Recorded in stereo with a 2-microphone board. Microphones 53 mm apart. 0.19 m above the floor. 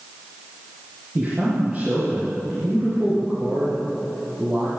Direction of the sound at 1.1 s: 15° right (ahead or behind).